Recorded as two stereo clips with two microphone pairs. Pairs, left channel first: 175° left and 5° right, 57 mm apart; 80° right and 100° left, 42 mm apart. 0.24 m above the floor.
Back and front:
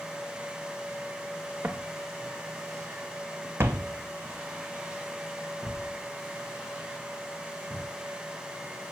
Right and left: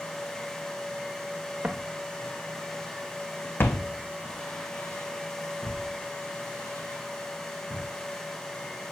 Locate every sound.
1.6 s footsteps: 45° left, 1.3 m; by 7.9 s 95° right, 4 m